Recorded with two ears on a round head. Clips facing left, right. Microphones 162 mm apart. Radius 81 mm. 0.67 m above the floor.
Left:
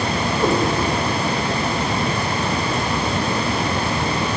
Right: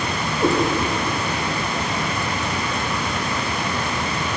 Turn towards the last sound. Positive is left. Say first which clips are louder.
# even
turn(degrees=-20)  # may be behind; listen again after turning